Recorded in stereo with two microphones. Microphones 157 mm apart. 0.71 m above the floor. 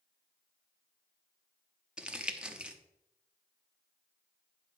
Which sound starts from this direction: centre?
Crumpling, at 2.0 s.